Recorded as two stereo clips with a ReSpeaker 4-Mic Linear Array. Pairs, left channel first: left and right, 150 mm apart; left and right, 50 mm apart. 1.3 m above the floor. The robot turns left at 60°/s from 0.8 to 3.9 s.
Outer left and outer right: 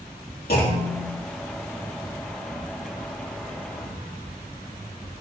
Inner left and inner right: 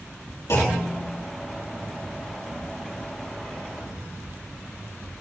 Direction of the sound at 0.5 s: 70° left (ahead or behind).